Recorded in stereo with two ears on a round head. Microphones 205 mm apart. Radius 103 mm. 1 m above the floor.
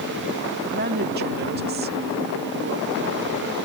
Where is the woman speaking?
45° right (ahead or behind).